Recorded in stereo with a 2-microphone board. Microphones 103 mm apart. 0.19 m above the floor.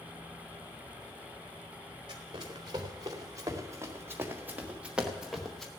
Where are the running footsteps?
45° right (ahead or behind), 2.5 m; by 5.7 s 5° left (ahead or behind), 1.5 m.